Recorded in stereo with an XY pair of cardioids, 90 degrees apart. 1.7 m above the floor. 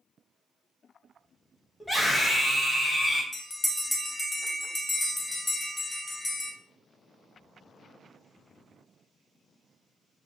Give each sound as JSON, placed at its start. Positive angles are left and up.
{"t": 1.8, "sound": "a scream", "azimuth_deg": 10, "distance_m": 1.3}
{"t": 3.3, "sound": "a bell", "azimuth_deg": 25, "distance_m": 0.8}